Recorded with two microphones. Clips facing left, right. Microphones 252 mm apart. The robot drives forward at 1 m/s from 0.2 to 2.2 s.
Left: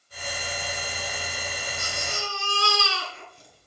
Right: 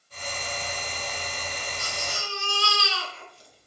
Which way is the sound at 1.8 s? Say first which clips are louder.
Left 2 dB; 50° left (ahead or behind).